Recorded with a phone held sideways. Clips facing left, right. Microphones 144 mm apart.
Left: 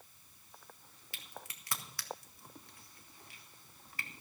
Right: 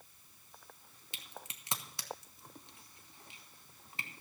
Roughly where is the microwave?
No microwave in this recording.